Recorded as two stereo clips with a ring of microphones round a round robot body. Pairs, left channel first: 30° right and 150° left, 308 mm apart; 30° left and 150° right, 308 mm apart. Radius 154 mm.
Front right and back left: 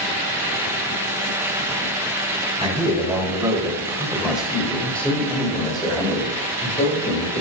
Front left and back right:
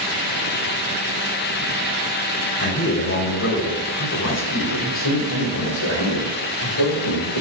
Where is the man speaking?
80° left, 3 m; by 7.4 s 20° left, 2.5 m.